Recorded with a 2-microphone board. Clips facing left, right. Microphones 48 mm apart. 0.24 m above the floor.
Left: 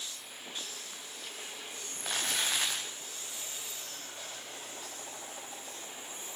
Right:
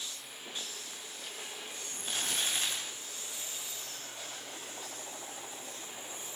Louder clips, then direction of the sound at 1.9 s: Left 2 dB; 85° left.